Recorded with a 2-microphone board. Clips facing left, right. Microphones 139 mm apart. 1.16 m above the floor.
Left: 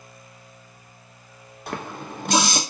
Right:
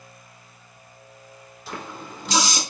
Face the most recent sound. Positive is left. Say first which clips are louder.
# left 3 dB
turn(degrees=60)  # may be behind; listen again after turning